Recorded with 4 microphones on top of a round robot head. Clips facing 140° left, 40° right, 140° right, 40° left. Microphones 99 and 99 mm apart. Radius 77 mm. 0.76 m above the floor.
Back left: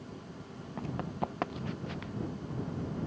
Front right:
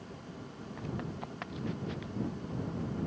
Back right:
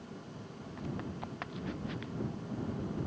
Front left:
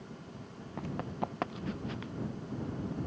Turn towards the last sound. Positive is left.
turn(degrees=95)